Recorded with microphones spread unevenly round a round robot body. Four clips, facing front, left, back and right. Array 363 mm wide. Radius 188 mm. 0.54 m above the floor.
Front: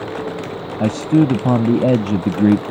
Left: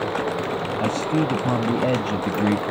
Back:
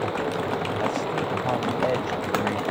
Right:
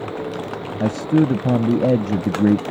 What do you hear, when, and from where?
0.8 s a man speaking: 25° right